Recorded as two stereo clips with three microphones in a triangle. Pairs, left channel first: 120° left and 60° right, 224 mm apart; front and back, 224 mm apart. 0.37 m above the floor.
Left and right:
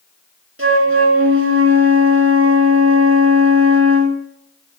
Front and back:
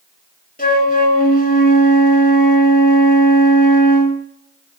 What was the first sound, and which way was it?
A flute, 50° right.